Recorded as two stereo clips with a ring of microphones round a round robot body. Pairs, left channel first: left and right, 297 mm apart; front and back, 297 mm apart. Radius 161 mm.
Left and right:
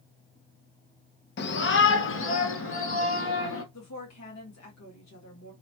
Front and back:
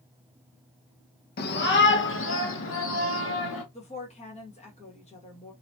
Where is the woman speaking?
65° left, 1.5 m.